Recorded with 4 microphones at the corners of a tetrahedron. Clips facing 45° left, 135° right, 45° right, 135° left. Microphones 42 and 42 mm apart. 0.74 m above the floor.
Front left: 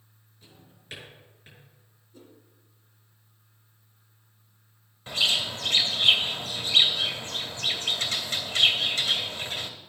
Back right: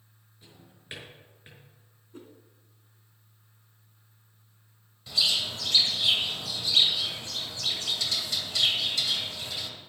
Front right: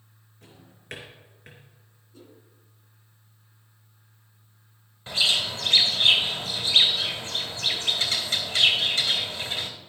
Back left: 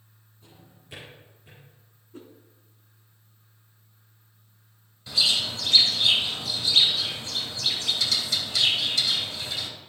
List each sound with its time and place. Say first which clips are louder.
0.4 s a drawer: even, front right 1 dB; 65° right, 5 m
2.1 s a whoosh: back right 4 dB, back left 5 dB; 175° right, 2.5 m
5.1 s a bird: front left 2 dB, front right 1 dB; straight ahead, 1.9 m